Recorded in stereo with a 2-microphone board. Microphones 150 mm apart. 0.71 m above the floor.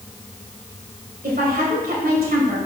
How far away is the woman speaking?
About 3 m.